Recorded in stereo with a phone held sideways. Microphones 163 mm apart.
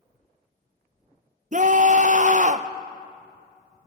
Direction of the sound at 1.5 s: 50° right (ahead or behind).